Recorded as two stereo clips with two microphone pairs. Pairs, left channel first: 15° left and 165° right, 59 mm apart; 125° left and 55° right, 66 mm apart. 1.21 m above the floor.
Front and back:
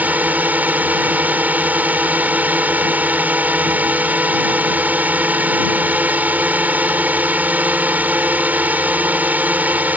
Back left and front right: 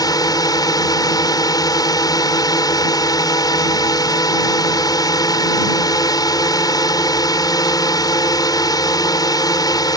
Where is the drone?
135° left.